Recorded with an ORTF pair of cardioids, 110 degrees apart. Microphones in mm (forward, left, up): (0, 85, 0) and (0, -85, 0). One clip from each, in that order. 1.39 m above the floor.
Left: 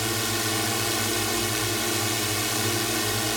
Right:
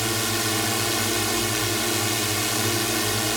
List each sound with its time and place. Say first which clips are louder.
0.0 s a drone: right 2 dB; 35° right